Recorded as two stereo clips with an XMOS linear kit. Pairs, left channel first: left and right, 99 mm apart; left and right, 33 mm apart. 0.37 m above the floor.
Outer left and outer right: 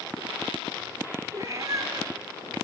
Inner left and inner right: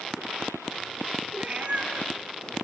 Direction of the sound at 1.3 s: 40° right (ahead or behind).